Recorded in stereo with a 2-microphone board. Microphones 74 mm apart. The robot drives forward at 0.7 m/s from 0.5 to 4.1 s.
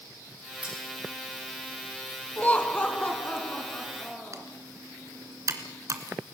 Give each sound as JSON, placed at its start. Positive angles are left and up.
{"t": 0.6, "sound": "cutlery clinking", "side_deg": -15, "distance_m": 9.0}
{"t": 2.4, "sound": "laughter", "side_deg": 20, "distance_m": 1.2}
{"t": 4.3, "sound": "typing on a keyboard", "side_deg": -45, "distance_m": 2.5}